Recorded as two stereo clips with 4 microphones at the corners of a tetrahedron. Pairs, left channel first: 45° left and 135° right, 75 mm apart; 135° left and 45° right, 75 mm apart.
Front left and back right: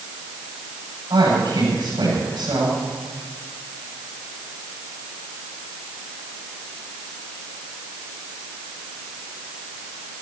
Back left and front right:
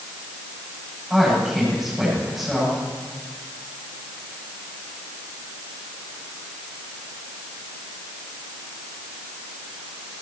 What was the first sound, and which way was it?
A man speaking, 130° right.